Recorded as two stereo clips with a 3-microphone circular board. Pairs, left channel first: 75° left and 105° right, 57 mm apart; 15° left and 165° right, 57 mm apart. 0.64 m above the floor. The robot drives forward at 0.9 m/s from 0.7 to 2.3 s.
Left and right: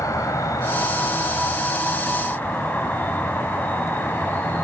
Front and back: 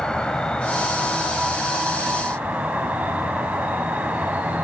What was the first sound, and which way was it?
An insect, 90° left.